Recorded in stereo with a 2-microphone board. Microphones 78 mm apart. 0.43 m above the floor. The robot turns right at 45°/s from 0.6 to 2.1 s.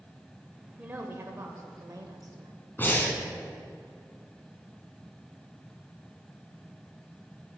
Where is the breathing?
25° left (ahead or behind), 1.2 m.